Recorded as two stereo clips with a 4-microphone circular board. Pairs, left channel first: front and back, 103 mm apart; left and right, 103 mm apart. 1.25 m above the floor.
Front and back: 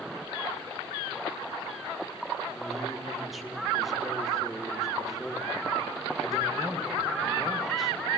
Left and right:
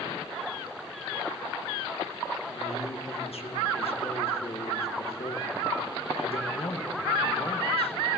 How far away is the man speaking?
About 1.6 m.